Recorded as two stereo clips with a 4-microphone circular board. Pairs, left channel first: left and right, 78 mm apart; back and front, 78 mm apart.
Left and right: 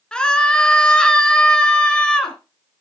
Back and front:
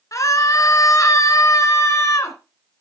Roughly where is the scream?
Behind.